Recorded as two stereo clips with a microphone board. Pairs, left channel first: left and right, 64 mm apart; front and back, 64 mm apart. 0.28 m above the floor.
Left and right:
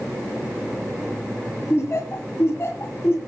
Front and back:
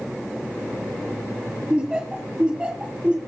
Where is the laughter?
110° left, 1.5 m.